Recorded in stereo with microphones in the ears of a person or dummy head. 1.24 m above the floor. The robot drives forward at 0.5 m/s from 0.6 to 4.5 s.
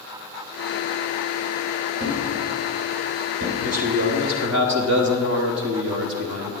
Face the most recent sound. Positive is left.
turn(degrees=-50)  # may be behind; listen again after turning